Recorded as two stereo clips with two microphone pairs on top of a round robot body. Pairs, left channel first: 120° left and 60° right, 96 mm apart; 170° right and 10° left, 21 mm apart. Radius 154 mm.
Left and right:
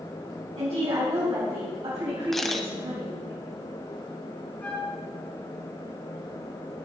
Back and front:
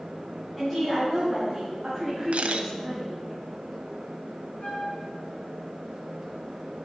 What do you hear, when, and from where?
0.6 s a woman speaking: 80° right, 4 m; by 3.3 s 55° right, 3.5 m
2.3 s a camera shutter: 30° left, 0.6 m
4.6 s a flute: 170° right, 3.5 m